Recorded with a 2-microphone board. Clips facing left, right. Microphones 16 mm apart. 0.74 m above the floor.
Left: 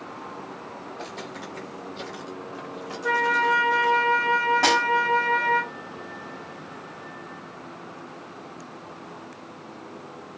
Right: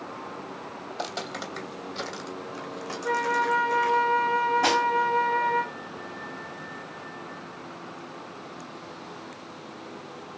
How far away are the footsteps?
About 1.2 m.